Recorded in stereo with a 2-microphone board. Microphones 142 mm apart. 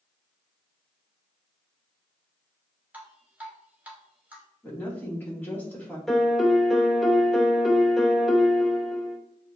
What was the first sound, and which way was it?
Dripping, 10° right (ahead or behind).